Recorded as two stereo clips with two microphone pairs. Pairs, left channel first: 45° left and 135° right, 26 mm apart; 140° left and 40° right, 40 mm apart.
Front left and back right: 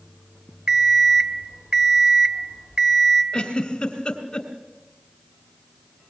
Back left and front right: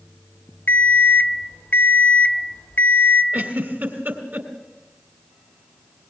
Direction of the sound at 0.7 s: Straight behind.